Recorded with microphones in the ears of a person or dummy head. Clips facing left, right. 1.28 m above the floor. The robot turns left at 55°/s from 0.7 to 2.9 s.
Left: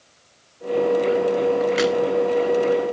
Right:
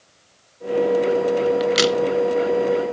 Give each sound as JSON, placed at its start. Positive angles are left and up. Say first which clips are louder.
{"t": 1.6, "sound": "a crack", "louder": "right 1 dB", "side_deg": -45, "distance_m": 0.8}